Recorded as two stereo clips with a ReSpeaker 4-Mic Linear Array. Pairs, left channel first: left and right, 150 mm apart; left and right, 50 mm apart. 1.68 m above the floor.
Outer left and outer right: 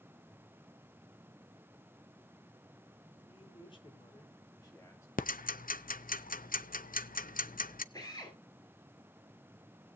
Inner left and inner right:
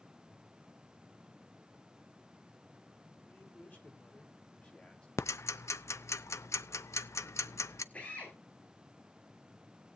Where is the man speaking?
40° left (ahead or behind), 5 m; by 5.1 s 20° left (ahead or behind), 3.5 m.